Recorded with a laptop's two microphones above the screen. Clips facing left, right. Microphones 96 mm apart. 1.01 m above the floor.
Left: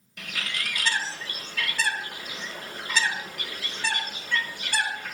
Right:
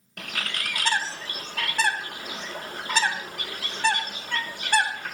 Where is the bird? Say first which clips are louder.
Right 1 dB; 50° right (ahead or behind), 1.1 m.